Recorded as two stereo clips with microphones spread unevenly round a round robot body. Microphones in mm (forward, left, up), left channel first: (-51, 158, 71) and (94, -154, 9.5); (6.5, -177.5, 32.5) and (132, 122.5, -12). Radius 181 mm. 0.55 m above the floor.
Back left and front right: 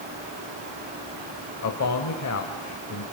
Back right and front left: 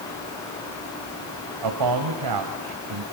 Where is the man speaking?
70° left, 2.5 m.